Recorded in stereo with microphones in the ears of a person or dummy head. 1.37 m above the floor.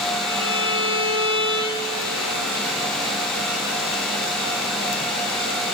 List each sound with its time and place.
0.3 s a violin: 70° left (ahead or behind), 1.0 m